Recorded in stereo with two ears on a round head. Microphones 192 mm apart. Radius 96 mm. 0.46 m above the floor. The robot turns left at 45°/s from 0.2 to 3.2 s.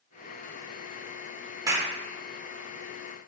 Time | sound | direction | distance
1.7 | a clap | 15° right (ahead or behind) | 0.7 m